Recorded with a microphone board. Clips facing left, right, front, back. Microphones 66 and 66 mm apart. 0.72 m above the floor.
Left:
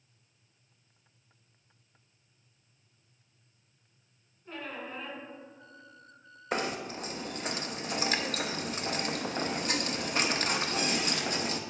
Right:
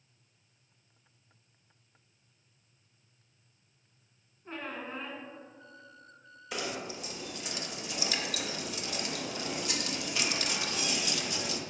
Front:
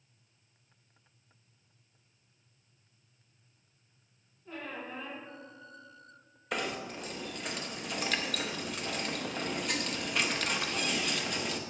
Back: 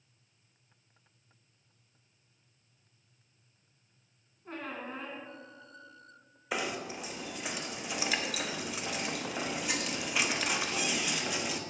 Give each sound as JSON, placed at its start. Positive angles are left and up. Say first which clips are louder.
{"t": 4.5, "sound": "a squeak", "louder": "right 1 dB, back 1 dB", "azimuth_deg": -140, "distance_m": 1.3}
{"t": 6.5, "sound": "knocking", "louder": "left 4 dB, even", "azimuth_deg": 100, "distance_m": 0.6}